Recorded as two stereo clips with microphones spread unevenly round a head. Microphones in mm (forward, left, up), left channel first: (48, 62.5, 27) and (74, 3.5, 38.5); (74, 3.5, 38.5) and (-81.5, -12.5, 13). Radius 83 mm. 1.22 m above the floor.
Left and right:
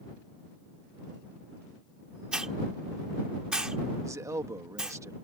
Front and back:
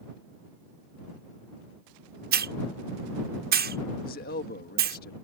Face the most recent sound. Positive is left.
turn(degrees=-25)